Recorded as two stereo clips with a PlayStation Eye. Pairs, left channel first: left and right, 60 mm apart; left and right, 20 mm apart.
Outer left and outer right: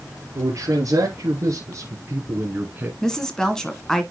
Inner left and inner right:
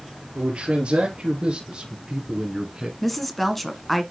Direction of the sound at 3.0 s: 10° left (ahead or behind).